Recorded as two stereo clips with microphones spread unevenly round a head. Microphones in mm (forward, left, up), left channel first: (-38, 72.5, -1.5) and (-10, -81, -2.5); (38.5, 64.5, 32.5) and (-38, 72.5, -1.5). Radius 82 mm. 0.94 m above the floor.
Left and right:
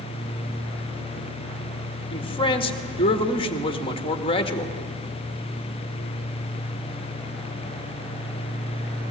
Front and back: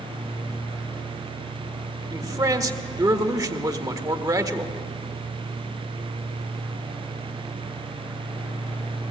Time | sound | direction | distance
2.1 | a man speaking | 155° left | 1.6 m